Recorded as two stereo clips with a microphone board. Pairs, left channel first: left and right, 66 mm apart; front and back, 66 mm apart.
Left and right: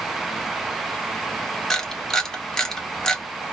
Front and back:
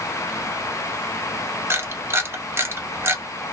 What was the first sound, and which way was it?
A camera shutter, 170° left.